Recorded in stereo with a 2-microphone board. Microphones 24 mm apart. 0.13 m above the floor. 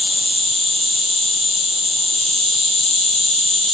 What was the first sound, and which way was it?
An insect, 15° left (ahead or behind).